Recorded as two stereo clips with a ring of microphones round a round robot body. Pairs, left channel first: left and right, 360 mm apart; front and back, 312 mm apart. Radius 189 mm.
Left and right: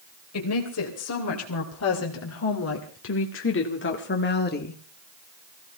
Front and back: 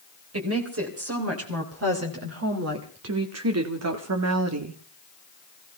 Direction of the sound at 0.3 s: 140° left.